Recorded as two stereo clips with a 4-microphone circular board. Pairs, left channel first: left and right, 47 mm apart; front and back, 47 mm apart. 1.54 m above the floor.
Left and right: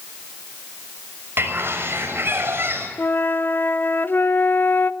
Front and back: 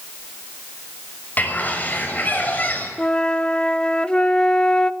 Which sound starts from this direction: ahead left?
A flute, at 3.0 s.